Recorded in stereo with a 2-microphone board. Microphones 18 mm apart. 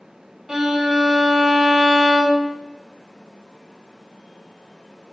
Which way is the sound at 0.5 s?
25° right (ahead or behind).